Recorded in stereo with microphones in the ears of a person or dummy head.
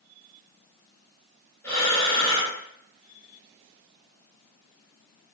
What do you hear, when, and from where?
1.6 s breathing: 15° left (ahead or behind), 1.7 m